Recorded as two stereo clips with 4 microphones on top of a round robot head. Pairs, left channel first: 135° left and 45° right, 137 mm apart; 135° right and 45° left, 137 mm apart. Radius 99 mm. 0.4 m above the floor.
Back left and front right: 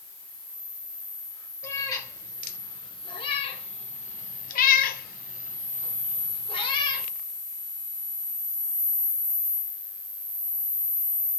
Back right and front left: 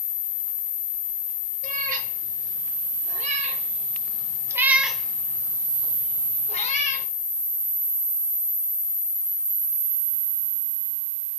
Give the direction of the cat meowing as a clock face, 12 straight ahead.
10 o'clock.